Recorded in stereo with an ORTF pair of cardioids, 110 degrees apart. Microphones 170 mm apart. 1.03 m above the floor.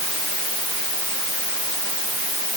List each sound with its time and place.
Only background noise.